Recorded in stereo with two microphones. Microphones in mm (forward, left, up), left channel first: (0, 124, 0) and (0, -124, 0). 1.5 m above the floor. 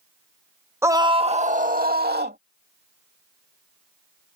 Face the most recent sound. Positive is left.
turn(degrees=-40)  # may be behind; listen again after turning